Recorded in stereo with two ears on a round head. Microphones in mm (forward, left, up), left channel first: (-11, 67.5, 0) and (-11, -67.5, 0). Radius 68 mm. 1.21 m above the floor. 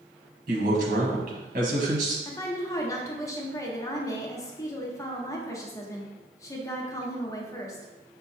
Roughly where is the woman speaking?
Left.